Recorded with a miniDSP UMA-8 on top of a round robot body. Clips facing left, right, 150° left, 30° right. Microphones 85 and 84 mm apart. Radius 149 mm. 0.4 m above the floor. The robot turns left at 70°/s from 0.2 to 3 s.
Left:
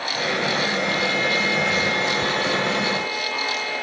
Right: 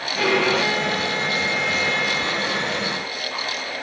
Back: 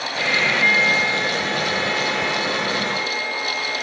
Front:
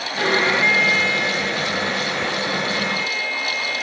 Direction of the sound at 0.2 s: 80° right.